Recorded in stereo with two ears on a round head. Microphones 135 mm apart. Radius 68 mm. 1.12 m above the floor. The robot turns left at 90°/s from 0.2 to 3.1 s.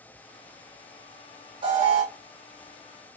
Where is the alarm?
35° right, 1.4 m; by 2.0 s 75° right, 1.4 m.